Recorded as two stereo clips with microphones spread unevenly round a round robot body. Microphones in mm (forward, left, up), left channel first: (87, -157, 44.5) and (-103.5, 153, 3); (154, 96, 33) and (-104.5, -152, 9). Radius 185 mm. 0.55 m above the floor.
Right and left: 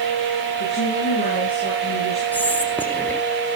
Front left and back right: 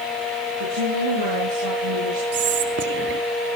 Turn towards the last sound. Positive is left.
turn(degrees=-150)